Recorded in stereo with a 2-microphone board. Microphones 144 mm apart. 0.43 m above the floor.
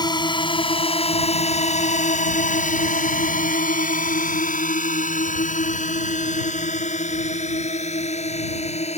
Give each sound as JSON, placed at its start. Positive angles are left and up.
{"t": 0.0, "sound": "a drone", "side_deg": 30}